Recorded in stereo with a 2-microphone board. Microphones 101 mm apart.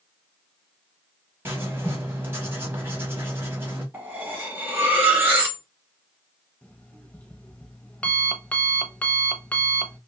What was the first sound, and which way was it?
Writing, 20° right (ahead or behind).